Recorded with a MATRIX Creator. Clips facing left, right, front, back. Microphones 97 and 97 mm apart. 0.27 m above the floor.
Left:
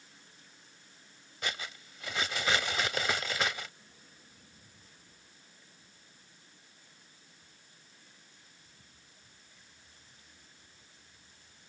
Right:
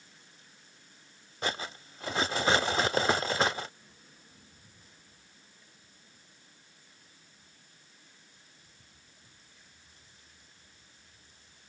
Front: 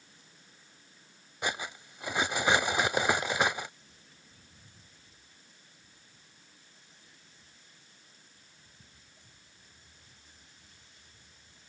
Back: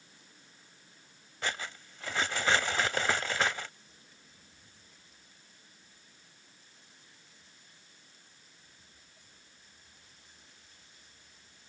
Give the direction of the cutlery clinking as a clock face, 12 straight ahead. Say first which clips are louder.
Right 5 dB, front 2 dB; 2 o'clock.